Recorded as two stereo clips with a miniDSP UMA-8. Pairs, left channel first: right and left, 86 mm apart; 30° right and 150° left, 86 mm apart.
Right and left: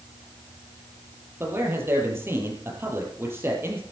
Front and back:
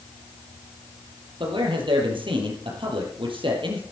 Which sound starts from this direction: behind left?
A man speaking, at 1.4 s.